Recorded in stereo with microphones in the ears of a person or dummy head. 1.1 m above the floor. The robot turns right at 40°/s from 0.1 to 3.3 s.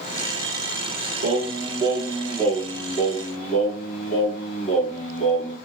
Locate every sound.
1.2 s singing: 45° right, 1.5 m; by 5.6 s 40° left, 1.5 m